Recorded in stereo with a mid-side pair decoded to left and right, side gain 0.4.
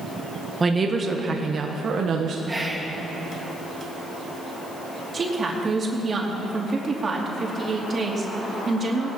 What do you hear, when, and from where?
0.6 s a woman speaking: 30° right, 1.5 m; by 2.4 s 70° right, 1.5 m
2.5 s whispering: 20° right, 3 m
5.1 s a woman speaking: 40° right, 3 m